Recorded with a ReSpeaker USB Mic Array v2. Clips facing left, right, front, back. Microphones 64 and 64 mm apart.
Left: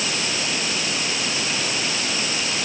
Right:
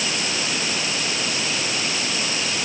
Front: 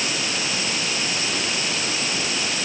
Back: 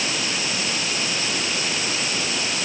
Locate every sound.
Only background noise.